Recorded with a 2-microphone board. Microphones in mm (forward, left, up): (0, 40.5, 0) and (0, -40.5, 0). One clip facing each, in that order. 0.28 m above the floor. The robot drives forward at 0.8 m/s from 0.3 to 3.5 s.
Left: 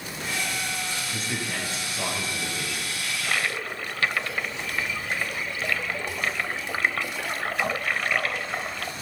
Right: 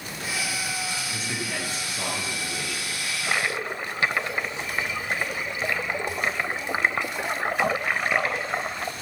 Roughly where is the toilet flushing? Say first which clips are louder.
Right 1 dB; centre.